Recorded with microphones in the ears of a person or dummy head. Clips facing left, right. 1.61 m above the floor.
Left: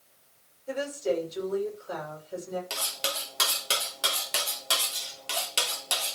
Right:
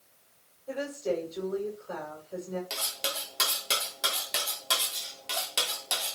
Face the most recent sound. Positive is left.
turn(degrees=0)  # may be behind; listen again after turning